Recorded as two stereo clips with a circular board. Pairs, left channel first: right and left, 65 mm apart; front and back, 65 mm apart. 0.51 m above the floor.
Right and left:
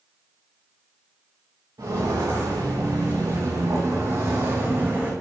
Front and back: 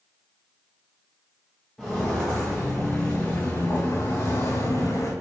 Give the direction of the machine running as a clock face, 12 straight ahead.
I don't hear a machine running.